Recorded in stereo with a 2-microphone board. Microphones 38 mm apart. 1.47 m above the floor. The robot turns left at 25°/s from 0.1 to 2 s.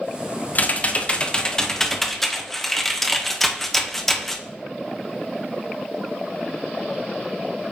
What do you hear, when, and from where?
0.6 s typing on a keyboard: 45° left, 0.6 m; by 4.4 s 5° left, 0.6 m